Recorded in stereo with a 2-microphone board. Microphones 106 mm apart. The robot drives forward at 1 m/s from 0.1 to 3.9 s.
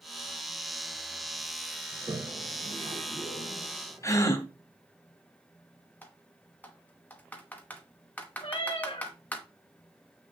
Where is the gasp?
30° left (ahead or behind), 1.0 m.